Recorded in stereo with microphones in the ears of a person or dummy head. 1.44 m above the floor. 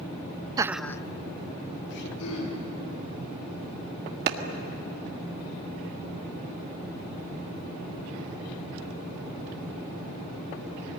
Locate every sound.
0.6 s laughter: 20° right (ahead or behind), 0.6 m; by 2.1 s 65° left (ahead or behind), 1.4 m
2.2 s throat clearing: 85° left, 9 m
4.3 s a clap: 60° right (ahead or behind), 1.8 m